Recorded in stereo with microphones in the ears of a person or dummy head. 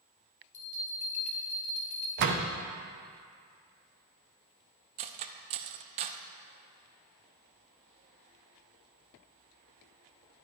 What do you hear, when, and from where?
0.5 s a bell: 30° left (ahead or behind), 1.0 m
2.2 s a door slam: 50° right (ahead or behind), 0.7 m
5.0 s cutlery clinking: 35° right (ahead or behind), 0.5 m